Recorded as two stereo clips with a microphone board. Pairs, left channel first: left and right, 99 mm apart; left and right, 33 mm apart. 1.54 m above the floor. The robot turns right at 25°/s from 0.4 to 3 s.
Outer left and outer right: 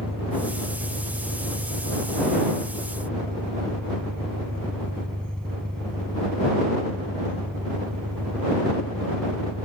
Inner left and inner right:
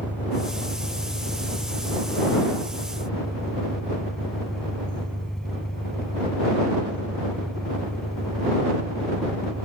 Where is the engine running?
105° left; by 9.7 s 170° left.